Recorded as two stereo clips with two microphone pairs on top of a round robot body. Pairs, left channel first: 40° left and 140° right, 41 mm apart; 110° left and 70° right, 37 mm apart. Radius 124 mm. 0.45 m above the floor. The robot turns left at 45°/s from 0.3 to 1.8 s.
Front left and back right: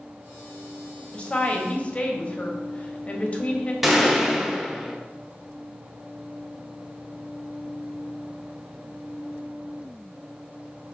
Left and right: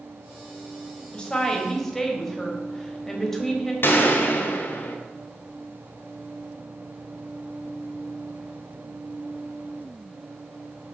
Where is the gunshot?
135° left, 0.9 m.